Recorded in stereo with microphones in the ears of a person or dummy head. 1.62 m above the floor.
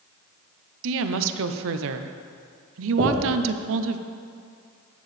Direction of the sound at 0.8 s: 70° right (ahead or behind).